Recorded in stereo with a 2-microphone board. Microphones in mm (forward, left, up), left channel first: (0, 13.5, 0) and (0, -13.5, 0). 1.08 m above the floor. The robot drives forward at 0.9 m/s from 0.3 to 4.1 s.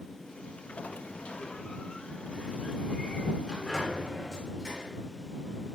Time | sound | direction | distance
0.8 | a sliding door | 65° left (ahead or behind) | 0.9 m